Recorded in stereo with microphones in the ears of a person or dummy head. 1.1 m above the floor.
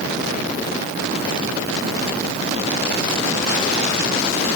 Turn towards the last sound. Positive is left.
No sound to turn to.